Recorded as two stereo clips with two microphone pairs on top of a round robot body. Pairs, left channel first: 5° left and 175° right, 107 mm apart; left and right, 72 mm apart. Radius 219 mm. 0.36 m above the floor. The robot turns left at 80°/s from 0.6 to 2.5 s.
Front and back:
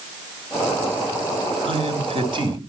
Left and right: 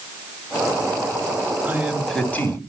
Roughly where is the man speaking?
Behind right.